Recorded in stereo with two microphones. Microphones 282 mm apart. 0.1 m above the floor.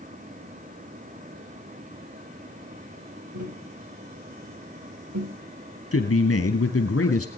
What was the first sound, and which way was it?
Tapping, 80° right.